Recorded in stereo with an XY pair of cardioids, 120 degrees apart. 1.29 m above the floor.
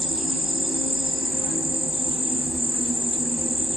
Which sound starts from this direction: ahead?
An insect, at 0.0 s.